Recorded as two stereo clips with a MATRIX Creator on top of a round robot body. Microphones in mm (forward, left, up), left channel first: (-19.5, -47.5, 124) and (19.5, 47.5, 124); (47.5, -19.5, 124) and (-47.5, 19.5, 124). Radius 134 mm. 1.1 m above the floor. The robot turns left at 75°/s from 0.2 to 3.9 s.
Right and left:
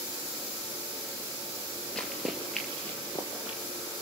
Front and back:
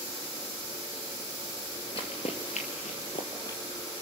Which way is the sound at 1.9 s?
30° right.